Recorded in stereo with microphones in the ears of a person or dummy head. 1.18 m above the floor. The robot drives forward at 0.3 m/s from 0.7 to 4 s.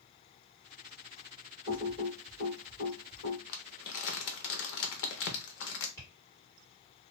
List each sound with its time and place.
1.7 s typing on a keyboard: 45° left (ahead or behind), 1.5 m; by 3.4 s 50° left (ahead or behind), 1.4 m
3.5 s crumpling: 65° left (ahead or behind), 0.7 m
6.0 s tapping: 15° left (ahead or behind), 1.9 m